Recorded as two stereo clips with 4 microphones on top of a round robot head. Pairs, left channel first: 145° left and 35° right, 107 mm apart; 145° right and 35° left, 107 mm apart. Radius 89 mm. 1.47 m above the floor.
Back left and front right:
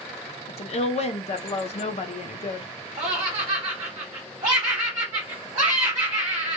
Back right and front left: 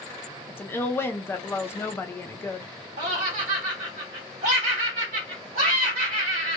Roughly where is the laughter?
Ahead left.